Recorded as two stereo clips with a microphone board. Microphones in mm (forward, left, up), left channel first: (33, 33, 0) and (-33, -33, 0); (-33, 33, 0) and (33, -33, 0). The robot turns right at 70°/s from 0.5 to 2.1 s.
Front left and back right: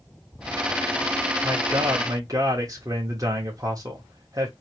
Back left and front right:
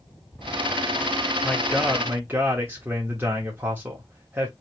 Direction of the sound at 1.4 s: 155° right.